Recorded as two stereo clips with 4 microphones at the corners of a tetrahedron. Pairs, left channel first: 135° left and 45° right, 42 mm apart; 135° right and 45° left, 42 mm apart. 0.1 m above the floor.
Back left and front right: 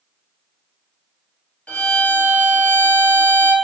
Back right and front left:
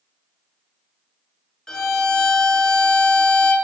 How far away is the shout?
No shout in this recording.